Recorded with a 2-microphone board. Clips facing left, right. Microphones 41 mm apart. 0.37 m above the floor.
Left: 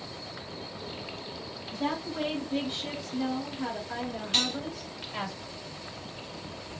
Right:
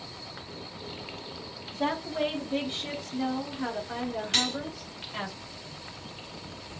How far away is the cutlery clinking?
About 2.5 m.